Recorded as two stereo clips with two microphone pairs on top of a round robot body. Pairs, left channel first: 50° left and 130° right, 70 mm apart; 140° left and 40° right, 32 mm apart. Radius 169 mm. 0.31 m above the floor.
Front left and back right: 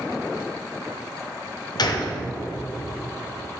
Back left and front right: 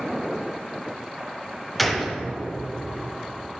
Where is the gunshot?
45° left, 1.3 m.